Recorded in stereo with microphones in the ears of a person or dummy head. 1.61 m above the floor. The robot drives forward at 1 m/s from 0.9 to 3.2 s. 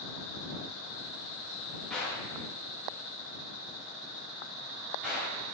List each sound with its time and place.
1.9 s a gunshot: centre (ahead or behind), 1.1 m